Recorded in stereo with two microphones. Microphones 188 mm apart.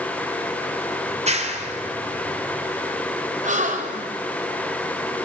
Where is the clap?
40° right (ahead or behind), 3 m.